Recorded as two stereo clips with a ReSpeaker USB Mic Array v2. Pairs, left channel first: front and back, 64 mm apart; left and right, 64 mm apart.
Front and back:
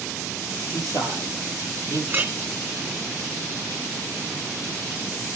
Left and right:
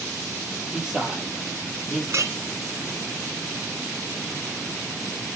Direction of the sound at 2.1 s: 125° right.